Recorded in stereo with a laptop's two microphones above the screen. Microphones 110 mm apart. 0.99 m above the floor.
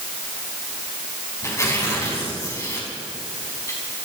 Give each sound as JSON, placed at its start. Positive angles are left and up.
{"t": 1.4, "sound": "tearing paper", "side_deg": 25, "distance_m": 4.5}